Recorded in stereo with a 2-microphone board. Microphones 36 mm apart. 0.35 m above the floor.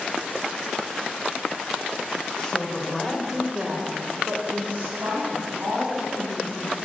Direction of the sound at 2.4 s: 30° left (ahead or behind).